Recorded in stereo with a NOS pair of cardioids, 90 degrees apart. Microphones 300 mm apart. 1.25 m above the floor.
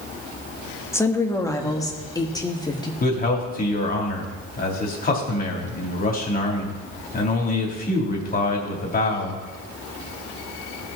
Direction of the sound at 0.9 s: 10° left.